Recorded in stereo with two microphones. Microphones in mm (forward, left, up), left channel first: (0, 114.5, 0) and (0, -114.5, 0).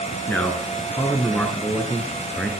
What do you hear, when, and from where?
0.3 s a man speaking: 10° left (ahead or behind), 2.0 m